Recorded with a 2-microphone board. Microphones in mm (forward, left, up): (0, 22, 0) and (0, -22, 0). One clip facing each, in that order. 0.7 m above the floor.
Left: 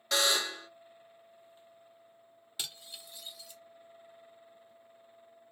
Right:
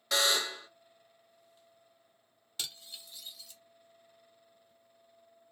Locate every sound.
0.1 s a buzzer: centre (ahead or behind), 0.8 m
2.6 s cutlery clinking: 10° left (ahead or behind), 0.7 m